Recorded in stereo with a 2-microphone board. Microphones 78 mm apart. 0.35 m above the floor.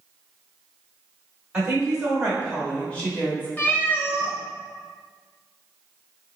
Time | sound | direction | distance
1.5 | a woman speaking | 10° right (ahead or behind) | 1.3 m
3.6 | a cat meowing | 25° left (ahead or behind) | 0.7 m